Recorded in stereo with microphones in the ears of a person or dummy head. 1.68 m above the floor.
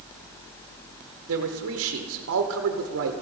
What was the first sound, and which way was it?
A man speaking, 70° right (ahead or behind).